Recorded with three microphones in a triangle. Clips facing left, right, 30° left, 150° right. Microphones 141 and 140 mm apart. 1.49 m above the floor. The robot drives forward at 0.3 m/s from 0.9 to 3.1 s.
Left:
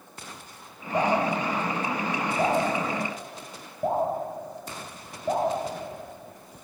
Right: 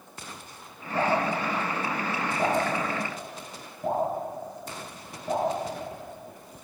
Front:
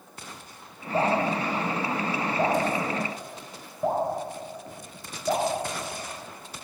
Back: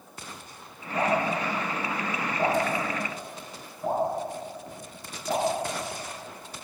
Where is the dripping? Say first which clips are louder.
Left 2 dB, front 2 dB; 60° left, 6 m; by 6.6 s 70° left, 5.5 m.